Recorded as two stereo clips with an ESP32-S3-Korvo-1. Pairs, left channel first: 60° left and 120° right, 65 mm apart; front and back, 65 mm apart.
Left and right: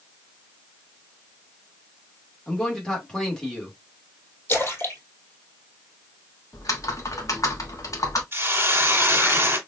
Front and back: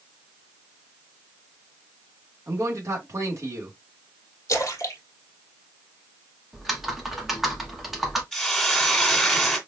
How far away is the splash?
About 1.5 m.